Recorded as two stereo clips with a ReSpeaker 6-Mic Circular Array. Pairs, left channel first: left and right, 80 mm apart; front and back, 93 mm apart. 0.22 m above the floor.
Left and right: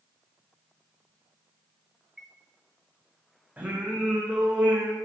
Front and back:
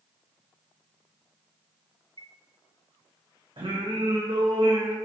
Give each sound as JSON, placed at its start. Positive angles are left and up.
{"t": 2.2, "sound": "a chime", "azimuth_deg": -175, "distance_m": 1.3}
{"t": 3.6, "sound": "singing", "azimuth_deg": -160, "distance_m": 3.0}